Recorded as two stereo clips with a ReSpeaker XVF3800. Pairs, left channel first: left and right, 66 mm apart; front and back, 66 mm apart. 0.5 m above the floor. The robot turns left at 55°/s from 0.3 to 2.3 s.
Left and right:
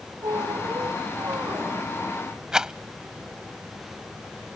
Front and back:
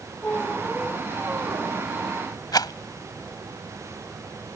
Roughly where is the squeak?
Ahead right.